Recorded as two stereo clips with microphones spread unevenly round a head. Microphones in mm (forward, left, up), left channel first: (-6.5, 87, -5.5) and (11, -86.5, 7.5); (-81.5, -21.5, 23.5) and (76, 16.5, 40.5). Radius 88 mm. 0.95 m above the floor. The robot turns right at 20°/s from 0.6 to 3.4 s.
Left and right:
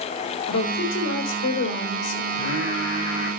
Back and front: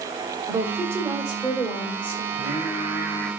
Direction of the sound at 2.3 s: 75° left.